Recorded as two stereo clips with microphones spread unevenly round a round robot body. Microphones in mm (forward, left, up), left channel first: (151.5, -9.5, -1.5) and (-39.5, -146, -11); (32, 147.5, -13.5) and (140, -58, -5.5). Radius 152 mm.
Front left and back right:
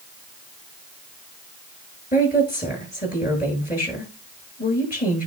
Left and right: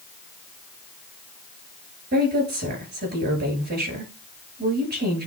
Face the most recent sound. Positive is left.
turn(degrees=-15)